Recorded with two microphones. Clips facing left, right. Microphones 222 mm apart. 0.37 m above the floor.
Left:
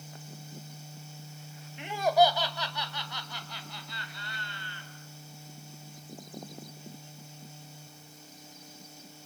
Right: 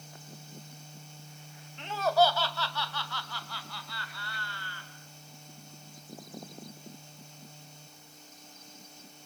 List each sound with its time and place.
1.8 s laughter: 10° left (ahead or behind), 1.7 m; by 4.9 s 20° left (ahead or behind), 4.5 m